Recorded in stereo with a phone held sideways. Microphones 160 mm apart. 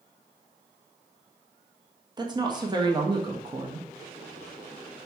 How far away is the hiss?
I don't hear a hiss.